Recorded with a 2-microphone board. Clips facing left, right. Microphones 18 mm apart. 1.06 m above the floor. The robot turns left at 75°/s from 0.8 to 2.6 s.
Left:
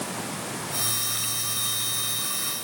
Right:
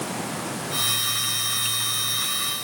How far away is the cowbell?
No cowbell in this recording.